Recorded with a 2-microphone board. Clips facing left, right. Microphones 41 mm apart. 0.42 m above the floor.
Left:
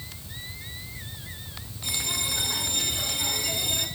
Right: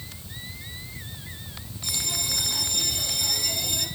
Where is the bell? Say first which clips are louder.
Left 1 dB; 25° left (ahead or behind), 5 m.